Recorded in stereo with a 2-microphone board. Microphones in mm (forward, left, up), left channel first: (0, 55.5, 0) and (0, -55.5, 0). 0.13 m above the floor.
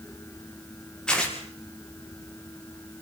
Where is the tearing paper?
5° left (ahead or behind), 6 m.